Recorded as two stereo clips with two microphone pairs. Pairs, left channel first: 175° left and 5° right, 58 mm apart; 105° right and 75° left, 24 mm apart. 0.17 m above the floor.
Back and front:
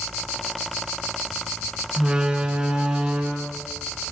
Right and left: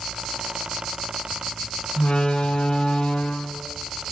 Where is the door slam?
80° right, 1.2 m.